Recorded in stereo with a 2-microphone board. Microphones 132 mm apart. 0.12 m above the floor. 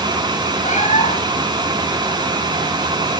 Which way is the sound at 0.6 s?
55° left (ahead or behind).